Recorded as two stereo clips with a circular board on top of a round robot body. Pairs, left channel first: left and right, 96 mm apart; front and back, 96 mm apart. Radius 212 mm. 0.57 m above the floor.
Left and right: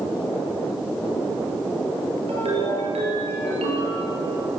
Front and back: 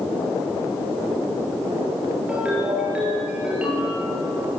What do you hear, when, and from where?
2.3 s a ringtone: 100° right, 8 m